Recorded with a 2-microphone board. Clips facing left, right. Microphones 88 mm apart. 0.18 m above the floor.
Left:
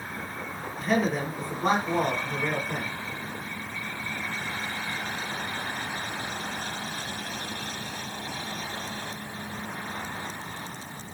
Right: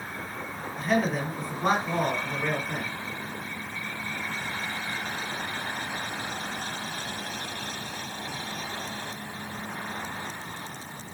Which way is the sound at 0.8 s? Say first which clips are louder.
Even; centre (ahead or behind).